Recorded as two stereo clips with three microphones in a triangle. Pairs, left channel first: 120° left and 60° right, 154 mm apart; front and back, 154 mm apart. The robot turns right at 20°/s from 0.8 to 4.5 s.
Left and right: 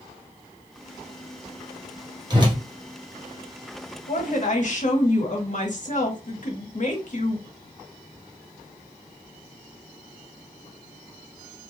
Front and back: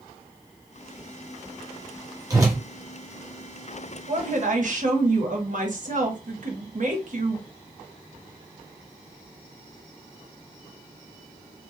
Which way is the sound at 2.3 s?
120° right.